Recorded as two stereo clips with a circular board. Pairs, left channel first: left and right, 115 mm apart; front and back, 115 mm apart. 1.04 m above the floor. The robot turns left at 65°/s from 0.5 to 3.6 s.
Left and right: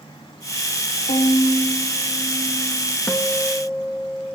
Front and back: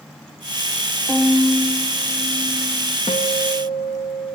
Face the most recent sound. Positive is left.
turn(degrees=-15)